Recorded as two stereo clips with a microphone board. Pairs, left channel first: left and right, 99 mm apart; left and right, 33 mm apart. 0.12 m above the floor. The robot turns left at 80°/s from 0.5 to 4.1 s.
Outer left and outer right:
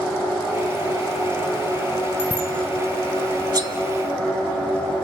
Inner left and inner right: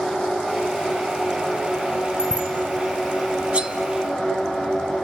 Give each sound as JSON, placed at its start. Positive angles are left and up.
{"t": 2.2, "sound": "a bicycle bell", "side_deg": -20, "distance_m": 4.0}
{"t": 3.5, "sound": "cutlery clinking", "side_deg": -40, "distance_m": 0.9}